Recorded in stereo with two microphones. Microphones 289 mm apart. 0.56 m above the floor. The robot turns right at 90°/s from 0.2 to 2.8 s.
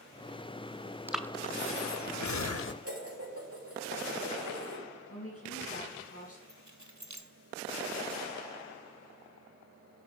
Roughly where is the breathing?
Centre.